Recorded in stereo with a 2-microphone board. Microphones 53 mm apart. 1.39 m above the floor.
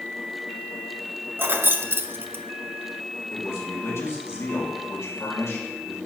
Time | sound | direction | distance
1.4 | keys jangling | 45° right (ahead or behind) | 0.5 m
3.3 | a man speaking | 60° left (ahead or behind) | 2 m